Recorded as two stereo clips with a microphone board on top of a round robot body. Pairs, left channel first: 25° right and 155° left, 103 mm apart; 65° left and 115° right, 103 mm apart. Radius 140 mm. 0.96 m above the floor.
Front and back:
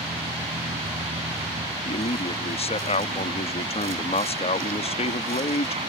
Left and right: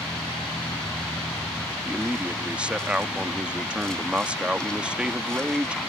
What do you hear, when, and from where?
0.0 s a vehicle: 150° left
1.9 s a man speaking: 35° right